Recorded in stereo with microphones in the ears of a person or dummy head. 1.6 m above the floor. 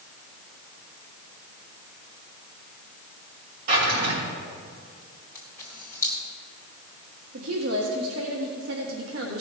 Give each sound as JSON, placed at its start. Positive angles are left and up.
{"t": 3.7, "sound": "a drawer", "side_deg": -50, "distance_m": 2.5}
{"t": 5.3, "sound": "a camera shutter", "side_deg": 15, "distance_m": 2.5}
{"t": 7.3, "sound": "a woman speaking", "side_deg": -80, "distance_m": 1.7}